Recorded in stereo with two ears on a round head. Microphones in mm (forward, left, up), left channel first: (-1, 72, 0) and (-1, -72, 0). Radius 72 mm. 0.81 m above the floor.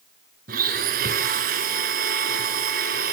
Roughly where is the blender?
Right.